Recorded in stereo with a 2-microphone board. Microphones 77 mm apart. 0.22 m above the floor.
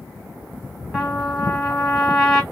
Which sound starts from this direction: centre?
A trumpet, at 0.9 s.